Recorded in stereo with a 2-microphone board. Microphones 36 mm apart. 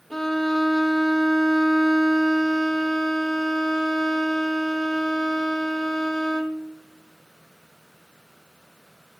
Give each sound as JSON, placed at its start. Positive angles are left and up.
{"t": 0.1, "sound": "a violin", "side_deg": 15, "distance_m": 1.3}